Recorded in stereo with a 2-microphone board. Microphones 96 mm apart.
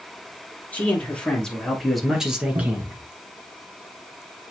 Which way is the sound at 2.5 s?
60° right (ahead or behind).